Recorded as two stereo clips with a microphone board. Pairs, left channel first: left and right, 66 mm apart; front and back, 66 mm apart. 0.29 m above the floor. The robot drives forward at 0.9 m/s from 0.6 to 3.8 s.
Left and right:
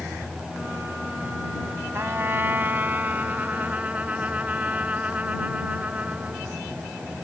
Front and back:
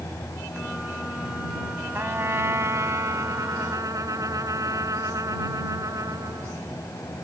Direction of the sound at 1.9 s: 130° right.